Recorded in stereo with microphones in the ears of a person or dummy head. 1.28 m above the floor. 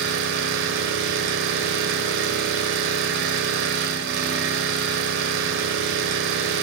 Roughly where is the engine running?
Right.